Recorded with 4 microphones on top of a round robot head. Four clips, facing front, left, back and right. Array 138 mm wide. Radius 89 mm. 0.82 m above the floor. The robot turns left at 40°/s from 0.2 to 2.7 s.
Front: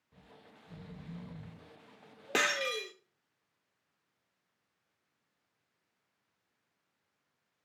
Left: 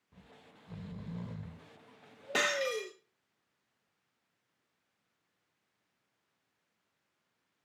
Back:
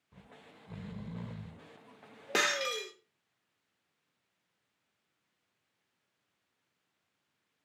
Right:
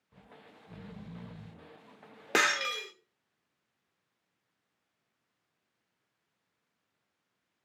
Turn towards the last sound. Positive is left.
turn(degrees=-105)